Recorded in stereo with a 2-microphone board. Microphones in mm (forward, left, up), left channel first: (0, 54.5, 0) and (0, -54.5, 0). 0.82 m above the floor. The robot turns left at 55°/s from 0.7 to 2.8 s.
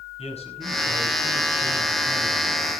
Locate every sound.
0.2 s a man speaking: 105° left, 6 m; by 2.7 s 5° right, 6 m